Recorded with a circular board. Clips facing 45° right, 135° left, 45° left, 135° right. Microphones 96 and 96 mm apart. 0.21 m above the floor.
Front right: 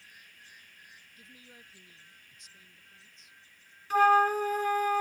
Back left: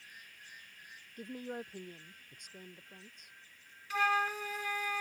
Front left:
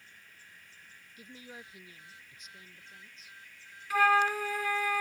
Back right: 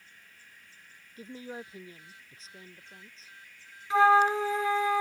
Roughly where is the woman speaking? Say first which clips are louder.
Back left 17 dB, back right 8 dB; behind.